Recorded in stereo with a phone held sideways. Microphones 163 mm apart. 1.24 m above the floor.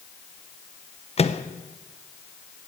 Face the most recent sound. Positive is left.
turn(degrees=40)  # may be behind; listen again after turning